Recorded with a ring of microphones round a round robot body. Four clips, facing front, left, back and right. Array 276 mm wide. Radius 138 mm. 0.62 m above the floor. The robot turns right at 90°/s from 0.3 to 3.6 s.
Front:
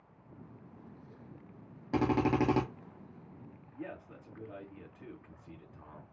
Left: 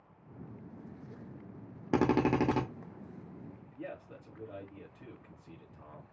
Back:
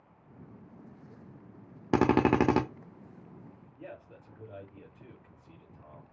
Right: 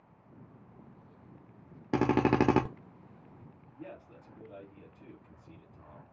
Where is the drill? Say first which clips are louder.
Right 2 dB, back 5 dB; 175° left, 0.6 m; by 2.6 s 120° right, 0.6 m.